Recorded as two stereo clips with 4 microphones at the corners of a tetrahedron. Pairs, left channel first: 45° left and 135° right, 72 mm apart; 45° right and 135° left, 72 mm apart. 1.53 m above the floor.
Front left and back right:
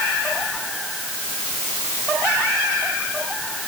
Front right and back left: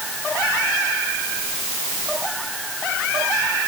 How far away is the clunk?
I don't hear a clunk.